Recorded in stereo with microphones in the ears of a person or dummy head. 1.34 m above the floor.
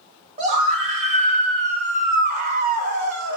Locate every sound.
0.4 s a scream: 35° right (ahead or behind), 2 m; by 3.4 s 70° right (ahead or behind), 0.8 m